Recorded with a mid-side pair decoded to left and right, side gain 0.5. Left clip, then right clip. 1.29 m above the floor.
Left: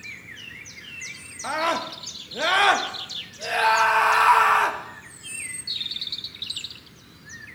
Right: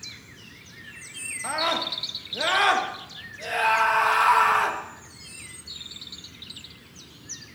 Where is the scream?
15° left, 1.5 m.